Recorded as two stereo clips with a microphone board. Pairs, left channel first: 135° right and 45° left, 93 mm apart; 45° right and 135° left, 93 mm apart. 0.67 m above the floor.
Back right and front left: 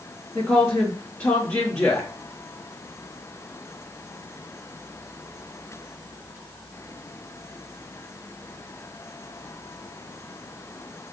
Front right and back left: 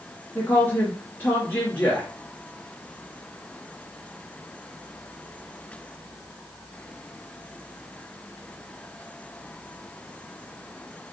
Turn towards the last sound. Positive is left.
turn(degrees=-90)